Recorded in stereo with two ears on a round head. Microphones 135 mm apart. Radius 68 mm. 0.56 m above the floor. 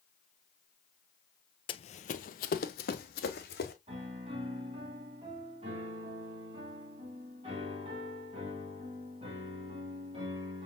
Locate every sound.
1.7 s running footsteps: 35° left (ahead or behind), 0.7 m; by 3.7 s 70° left (ahead or behind), 2 m
3.9 s a piano: 35° right (ahead or behind), 3 m